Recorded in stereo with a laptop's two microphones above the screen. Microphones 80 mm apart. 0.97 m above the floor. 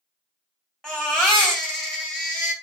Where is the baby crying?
5° left (ahead or behind), 2.5 m.